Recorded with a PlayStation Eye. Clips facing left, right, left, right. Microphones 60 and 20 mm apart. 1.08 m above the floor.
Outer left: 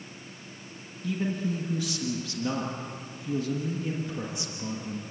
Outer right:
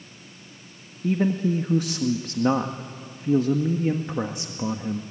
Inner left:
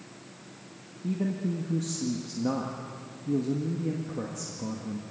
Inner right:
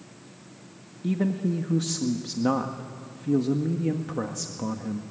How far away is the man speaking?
About 1.5 m.